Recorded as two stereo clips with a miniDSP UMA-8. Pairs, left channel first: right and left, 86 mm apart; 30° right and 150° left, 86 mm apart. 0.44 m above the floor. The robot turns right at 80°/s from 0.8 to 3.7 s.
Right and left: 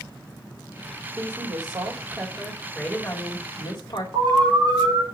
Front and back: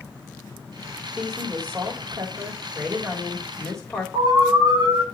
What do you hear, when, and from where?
1.2 s a woman speaking: 60° left, 1.7 m; by 4.0 s 95° right, 1.7 m
4.1 s an alarm: 125° left, 5 m